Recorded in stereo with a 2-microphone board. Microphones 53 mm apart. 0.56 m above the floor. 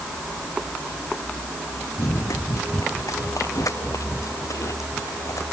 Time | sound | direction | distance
2.0 | running footsteps | 80° left | ?